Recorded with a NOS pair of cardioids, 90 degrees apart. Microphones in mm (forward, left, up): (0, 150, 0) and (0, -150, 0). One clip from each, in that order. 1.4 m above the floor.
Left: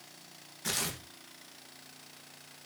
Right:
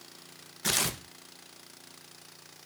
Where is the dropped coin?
I don't hear a dropped coin.